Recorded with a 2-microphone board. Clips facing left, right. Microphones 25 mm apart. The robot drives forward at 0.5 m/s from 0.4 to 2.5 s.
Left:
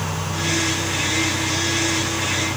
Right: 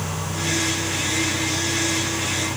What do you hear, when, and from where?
Only background noise.